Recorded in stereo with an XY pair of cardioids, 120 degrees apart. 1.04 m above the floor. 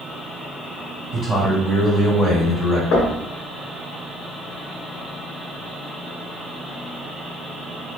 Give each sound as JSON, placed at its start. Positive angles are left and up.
{"t": 1.1, "sound": "a man speaking", "azimuth_deg": 5, "distance_m": 1.8}
{"t": 2.9, "sound": "knocking", "azimuth_deg": 60, "distance_m": 1.1}